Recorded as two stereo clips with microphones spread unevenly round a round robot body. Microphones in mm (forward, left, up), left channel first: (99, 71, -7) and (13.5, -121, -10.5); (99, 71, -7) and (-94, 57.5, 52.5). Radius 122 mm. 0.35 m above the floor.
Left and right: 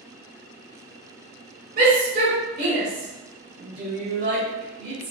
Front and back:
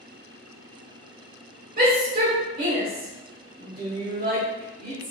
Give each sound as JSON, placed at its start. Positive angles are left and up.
{"t": 1.8, "sound": "a shout", "azimuth_deg": -130, "distance_m": 1.0}